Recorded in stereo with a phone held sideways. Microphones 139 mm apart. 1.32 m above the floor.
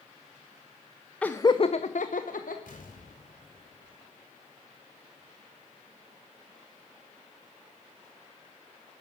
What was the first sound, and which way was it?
Laughter, 10° left (ahead or behind).